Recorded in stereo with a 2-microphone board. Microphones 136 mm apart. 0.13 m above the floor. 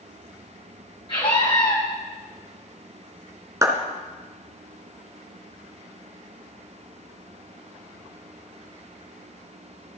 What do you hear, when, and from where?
1.1 s a scream: 40° left (ahead or behind), 5 m
3.6 s a clap: 25° right (ahead or behind), 1.4 m